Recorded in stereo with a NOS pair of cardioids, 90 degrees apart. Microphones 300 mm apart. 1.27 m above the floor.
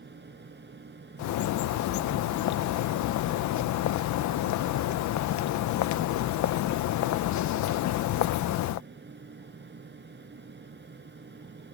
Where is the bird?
70° left.